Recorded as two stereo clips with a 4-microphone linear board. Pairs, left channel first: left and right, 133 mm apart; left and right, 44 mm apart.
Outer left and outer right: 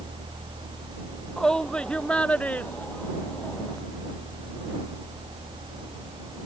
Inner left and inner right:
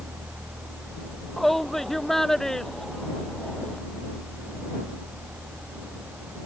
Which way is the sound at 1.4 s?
5° left (ahead or behind).